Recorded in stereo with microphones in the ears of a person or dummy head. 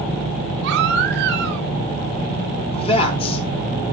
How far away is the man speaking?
About 3 m.